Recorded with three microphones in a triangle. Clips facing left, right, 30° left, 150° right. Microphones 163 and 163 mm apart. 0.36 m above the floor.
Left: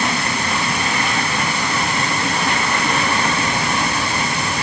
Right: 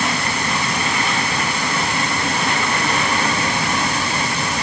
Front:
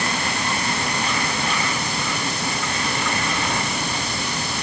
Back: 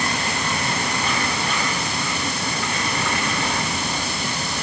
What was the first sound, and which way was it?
Only background noise.